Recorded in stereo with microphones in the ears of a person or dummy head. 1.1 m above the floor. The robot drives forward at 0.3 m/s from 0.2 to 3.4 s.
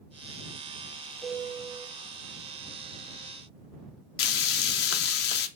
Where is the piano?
15° left (ahead or behind), 1.6 m.